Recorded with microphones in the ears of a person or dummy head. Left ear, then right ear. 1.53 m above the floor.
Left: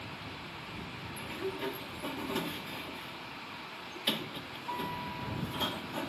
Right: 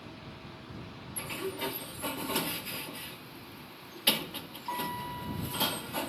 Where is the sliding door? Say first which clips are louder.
Right 2 dB; 25° right (ahead or behind).